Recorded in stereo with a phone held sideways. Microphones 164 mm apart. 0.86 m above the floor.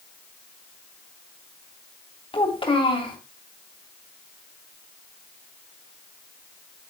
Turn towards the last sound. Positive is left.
turn(degrees=30)  # may be behind; listen again after turning